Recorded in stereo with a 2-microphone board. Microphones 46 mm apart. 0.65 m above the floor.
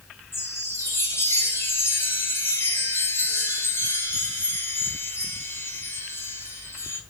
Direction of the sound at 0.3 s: 80° left.